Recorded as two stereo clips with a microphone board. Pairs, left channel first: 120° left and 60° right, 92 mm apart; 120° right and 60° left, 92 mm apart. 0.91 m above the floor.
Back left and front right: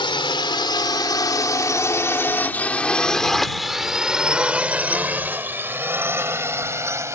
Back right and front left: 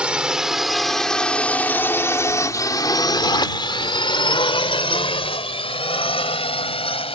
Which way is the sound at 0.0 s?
140° left.